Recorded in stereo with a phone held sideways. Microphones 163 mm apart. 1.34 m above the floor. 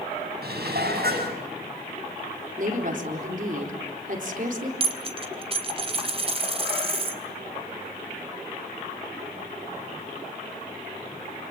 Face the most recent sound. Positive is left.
turn(degrees=-35)  # may be behind; listen again after turning